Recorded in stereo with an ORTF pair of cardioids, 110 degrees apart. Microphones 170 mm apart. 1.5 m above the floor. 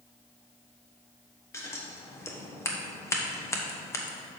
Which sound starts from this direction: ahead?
Scissors, at 1.5 s.